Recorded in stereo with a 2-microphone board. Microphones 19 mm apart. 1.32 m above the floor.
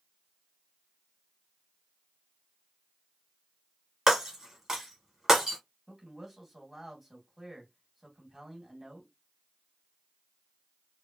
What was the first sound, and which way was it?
Breaking glass, 25° right (ahead or behind).